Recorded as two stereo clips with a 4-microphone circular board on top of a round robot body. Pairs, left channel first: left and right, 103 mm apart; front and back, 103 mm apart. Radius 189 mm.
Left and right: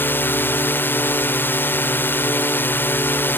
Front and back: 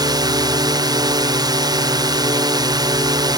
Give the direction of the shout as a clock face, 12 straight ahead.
I don't hear a shout.